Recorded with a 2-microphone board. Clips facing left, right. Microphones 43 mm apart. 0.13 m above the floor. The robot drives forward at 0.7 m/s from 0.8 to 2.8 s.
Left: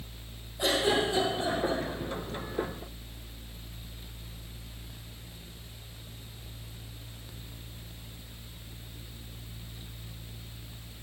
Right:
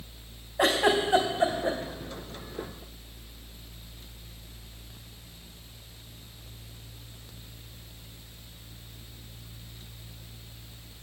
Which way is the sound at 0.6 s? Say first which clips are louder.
Right 3 dB; 80° right.